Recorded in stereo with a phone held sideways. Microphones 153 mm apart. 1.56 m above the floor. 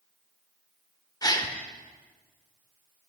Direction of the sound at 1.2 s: 25° left (ahead or behind).